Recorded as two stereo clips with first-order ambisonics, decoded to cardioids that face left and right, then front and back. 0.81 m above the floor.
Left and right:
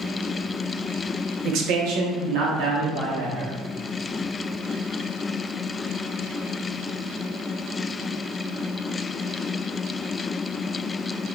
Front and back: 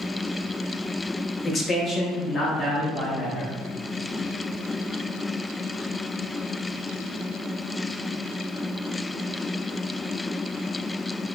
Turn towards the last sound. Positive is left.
turn(degrees=-80)